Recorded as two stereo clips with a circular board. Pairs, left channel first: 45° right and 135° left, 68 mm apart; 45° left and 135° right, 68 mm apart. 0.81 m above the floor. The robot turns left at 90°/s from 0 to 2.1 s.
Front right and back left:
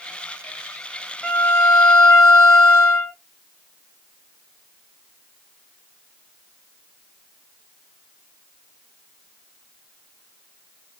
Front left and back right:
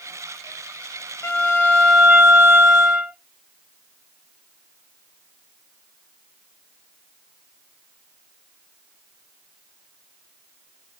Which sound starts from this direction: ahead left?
A violin, at 1.2 s.